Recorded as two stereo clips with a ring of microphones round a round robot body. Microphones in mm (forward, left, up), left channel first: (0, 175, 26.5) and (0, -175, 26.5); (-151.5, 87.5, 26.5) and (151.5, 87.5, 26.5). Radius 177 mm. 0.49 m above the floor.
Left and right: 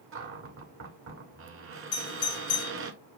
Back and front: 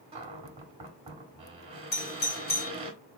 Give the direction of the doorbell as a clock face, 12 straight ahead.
8 o'clock.